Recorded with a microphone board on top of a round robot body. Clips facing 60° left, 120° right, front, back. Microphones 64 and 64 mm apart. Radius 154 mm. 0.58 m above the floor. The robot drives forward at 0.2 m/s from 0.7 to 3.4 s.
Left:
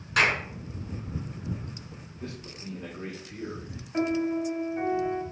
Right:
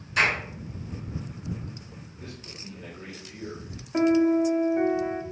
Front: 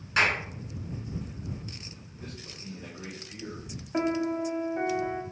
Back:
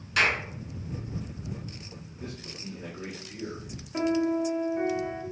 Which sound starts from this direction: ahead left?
A clap, at 0.2 s.